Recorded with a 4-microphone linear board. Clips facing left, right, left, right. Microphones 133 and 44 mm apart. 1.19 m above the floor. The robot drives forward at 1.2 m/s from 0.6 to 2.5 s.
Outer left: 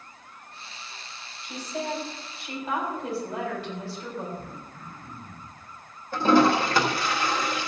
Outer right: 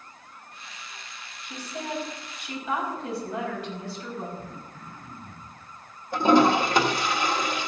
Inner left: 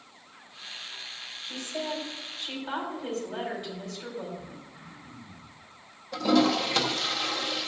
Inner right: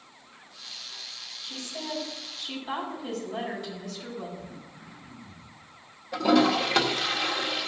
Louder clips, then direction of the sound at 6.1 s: Outer right 1 dB, inner right 2 dB; 20° right (ahead or behind).